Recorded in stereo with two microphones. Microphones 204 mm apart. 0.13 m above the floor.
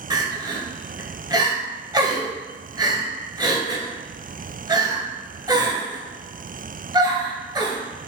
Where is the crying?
20° right (ahead or behind), 0.7 m.